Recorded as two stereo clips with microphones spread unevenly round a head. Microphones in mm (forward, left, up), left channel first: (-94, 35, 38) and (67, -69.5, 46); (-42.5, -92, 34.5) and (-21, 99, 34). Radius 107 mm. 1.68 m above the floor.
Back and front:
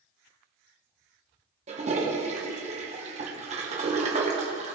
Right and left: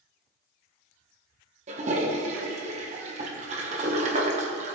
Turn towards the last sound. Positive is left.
turn(degrees=25)